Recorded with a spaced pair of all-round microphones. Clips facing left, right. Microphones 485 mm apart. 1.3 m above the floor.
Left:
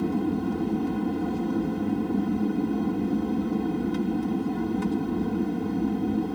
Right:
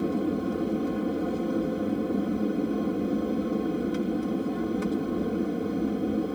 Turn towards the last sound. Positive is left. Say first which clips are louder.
# left 1 dB
turn(degrees=15)  # may be behind; listen again after turning